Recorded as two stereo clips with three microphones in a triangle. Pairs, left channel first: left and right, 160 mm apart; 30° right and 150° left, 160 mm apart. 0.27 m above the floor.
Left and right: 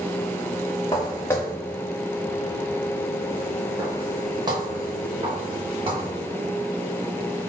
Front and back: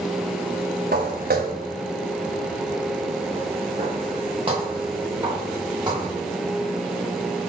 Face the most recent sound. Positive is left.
turn(degrees=-145)